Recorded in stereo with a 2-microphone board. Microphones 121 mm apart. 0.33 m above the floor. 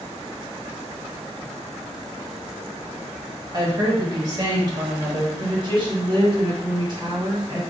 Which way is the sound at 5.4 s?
40° right (ahead or behind).